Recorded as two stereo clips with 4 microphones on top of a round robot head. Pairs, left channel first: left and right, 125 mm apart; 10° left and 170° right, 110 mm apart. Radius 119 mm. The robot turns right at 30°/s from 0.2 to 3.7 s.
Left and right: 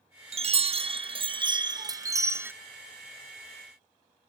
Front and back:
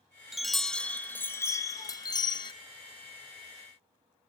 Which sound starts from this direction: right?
A chime, at 0.3 s.